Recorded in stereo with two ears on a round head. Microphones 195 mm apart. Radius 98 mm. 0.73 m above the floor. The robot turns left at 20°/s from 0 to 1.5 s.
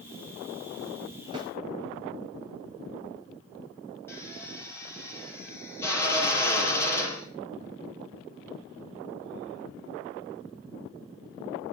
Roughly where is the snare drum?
Right.